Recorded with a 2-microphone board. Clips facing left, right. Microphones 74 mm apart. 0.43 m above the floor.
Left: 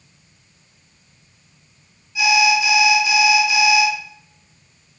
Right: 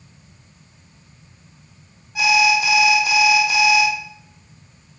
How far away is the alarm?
About 0.7 m.